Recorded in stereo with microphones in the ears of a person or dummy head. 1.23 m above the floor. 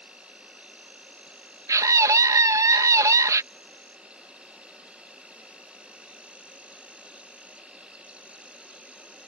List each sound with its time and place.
0.0 s an insect: 5° right (ahead or behind)
1.7 s a scream: 20° right (ahead or behind)